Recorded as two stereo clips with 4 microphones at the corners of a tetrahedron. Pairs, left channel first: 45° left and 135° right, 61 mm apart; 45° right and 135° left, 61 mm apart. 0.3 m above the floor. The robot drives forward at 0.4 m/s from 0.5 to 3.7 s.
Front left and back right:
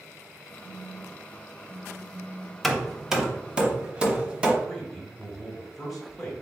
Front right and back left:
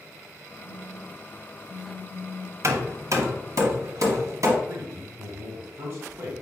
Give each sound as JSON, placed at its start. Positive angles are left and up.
{"t": 0.6, "sound": "a phone buzzing", "azimuth_deg": -80, "distance_m": 1.5}
{"t": 2.6, "sound": "hammering", "azimuth_deg": 130, "distance_m": 0.6}
{"t": 4.6, "sound": "a man speaking", "azimuth_deg": 135, "distance_m": 1.5}